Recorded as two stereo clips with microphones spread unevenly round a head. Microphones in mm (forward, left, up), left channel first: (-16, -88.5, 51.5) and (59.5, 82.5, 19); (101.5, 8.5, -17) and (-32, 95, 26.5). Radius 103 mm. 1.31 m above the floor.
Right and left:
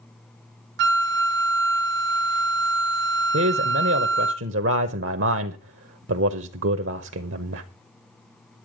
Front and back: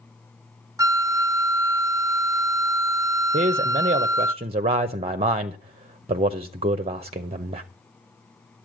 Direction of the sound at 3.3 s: 100° left.